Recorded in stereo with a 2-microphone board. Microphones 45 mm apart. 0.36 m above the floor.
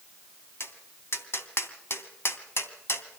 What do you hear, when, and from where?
0.6 s tapping: 60° left (ahead or behind), 2.5 m